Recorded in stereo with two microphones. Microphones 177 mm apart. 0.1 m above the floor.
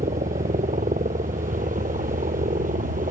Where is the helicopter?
50° right (ahead or behind); by 3.1 s 55° right (ahead or behind).